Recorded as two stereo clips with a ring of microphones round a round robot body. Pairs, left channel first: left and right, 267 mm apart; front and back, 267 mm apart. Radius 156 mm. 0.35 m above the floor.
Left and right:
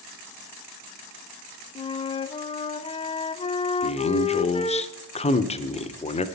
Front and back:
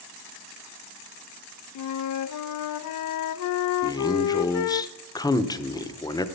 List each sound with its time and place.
1.8 s a flute: 20° left, 0.5 m
3.8 s a man speaking: 60° left, 0.9 m